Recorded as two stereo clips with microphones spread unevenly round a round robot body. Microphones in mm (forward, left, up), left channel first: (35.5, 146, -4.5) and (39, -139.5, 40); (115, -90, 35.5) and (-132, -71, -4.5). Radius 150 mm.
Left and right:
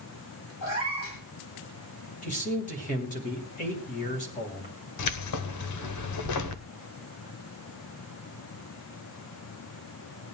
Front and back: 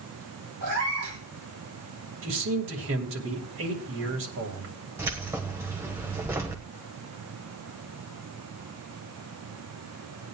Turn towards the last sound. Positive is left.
turn(degrees=100)